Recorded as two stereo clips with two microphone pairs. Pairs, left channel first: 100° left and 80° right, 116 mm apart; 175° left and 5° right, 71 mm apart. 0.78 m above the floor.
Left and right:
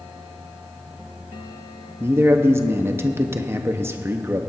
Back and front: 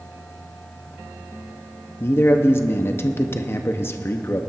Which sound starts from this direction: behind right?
A man speaking, at 2.0 s.